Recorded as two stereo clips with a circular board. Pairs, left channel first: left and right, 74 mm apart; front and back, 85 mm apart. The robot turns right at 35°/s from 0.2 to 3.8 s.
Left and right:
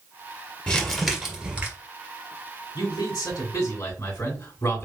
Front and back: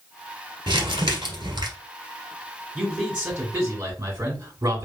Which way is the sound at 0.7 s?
170° left.